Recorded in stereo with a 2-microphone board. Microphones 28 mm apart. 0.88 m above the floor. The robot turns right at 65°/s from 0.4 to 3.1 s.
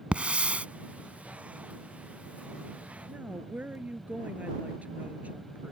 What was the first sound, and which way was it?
A hiss, 45° right (ahead or behind).